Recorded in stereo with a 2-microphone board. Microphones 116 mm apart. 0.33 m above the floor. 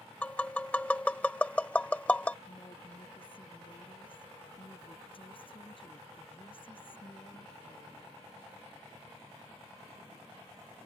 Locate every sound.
0.2 s tapping: 10° left (ahead or behind)
2.5 s a woman speaking: 50° left (ahead or behind)